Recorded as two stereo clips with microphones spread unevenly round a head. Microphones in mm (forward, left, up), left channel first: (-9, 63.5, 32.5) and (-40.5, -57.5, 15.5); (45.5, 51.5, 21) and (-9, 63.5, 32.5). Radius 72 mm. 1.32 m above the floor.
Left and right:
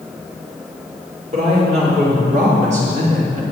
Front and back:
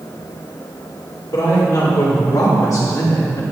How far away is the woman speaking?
About 4 m.